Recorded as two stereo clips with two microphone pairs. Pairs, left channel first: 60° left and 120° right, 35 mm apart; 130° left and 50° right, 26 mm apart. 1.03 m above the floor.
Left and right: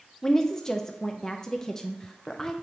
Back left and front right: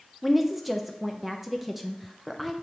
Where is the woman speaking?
25° left, 0.6 m.